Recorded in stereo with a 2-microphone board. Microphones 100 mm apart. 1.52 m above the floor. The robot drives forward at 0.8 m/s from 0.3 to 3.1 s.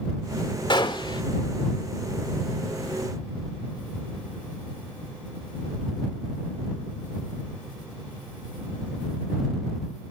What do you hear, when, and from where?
0.7 s a gunshot: 55° left (ahead or behind), 1.7 m; by 1.2 s 50° left (ahead or behind), 1.7 m